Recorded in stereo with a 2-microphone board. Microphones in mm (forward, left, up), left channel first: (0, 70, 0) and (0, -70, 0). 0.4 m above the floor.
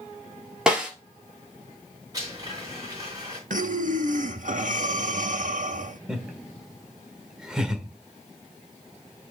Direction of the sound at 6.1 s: 5° right (ahead or behind).